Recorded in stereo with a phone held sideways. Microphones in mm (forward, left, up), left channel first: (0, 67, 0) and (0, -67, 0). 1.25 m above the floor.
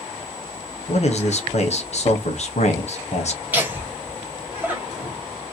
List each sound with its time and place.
0.9 s a man speaking: 50° left (ahead or behind), 0.7 m
3.5 s laughter: 15° right (ahead or behind), 1.2 m